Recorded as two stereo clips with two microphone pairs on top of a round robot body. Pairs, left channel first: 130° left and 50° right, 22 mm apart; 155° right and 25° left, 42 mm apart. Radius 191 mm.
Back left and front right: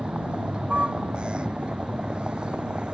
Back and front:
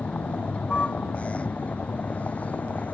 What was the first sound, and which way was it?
A vehicle, 95° right.